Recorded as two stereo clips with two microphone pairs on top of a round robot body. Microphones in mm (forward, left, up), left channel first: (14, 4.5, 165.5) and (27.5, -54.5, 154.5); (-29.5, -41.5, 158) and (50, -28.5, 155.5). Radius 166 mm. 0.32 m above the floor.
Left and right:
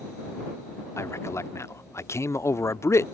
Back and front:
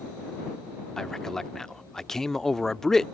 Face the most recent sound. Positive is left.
turn(degrees=105)